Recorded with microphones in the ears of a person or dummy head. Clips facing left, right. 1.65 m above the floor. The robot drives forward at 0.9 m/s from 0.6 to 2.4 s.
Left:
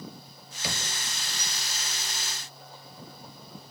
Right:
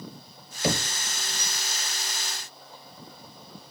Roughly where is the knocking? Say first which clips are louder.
Right 10 dB; right.